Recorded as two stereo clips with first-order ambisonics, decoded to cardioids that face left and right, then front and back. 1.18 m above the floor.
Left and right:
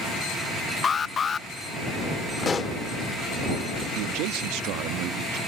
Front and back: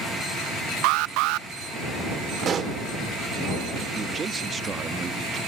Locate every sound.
0.8 s an alarm: 160° left
2.4 s a pop: 145° left
4.0 s a man speaking: 110° right